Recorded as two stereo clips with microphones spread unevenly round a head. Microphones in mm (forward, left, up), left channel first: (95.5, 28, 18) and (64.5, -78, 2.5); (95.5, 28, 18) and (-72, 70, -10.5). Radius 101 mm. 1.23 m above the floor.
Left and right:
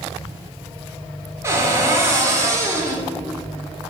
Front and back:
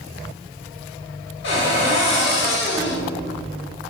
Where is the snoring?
I don't hear snoring.